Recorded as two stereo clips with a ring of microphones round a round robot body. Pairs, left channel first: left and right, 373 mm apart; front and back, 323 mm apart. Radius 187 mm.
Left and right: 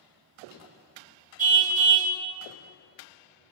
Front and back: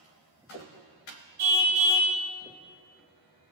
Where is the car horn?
160° right, 2.5 m.